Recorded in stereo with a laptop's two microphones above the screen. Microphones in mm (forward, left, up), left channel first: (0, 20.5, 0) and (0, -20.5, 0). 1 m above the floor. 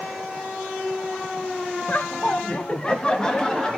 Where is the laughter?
35° left (ahead or behind), 0.6 m; by 3.8 s 15° left (ahead or behind), 1.8 m.